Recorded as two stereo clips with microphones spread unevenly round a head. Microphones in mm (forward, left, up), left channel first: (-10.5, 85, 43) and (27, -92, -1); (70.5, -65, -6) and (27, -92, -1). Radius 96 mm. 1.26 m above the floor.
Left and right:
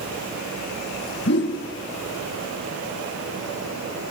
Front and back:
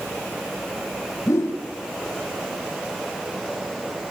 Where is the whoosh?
70° left, 3 m.